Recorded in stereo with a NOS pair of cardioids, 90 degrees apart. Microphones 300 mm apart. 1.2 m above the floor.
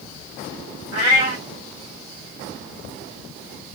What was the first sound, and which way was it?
A cat meowing, 55° right.